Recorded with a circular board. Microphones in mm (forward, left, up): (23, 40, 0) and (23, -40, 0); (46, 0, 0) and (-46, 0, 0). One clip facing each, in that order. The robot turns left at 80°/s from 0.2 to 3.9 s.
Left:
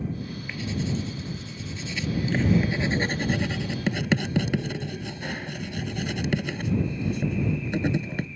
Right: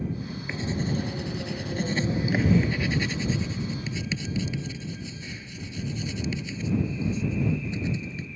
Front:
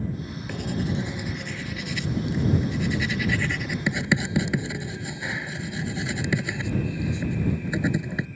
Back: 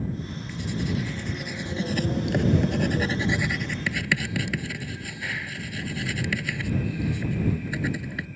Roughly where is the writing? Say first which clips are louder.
Right 1 dB, front 1 dB; ahead.